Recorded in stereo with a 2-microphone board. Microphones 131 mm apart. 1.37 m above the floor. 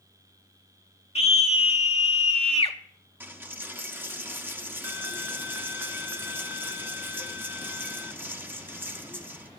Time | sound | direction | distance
1.1 | a scream | 50° left (ahead or behind) | 0.9 m
3.2 | a dropped coin | 15° right (ahead or behind) | 1.0 m